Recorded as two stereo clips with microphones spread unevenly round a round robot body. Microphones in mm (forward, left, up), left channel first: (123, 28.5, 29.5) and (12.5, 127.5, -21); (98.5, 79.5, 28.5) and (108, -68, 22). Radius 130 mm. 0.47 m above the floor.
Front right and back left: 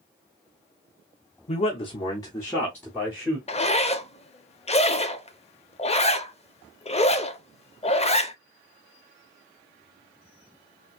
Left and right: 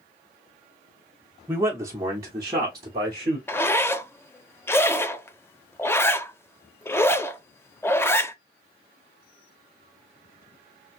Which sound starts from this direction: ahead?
A zipper, at 3.5 s.